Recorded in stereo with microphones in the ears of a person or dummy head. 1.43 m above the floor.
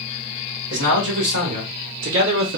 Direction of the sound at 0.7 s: 60° right (ahead or behind).